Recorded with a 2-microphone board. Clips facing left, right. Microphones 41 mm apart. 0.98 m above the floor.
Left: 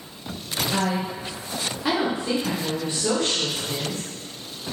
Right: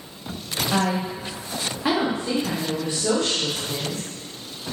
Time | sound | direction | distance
0.7 | a woman speaking | 50° right (ahead or behind) | 0.9 m